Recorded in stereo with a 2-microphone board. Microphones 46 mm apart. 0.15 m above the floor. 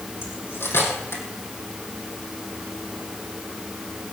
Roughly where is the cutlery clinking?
Left.